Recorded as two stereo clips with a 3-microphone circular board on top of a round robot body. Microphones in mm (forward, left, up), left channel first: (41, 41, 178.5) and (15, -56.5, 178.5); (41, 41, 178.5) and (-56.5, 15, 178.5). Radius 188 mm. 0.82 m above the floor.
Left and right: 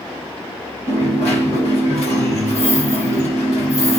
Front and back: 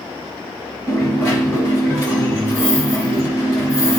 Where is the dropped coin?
75° left, 1.1 m.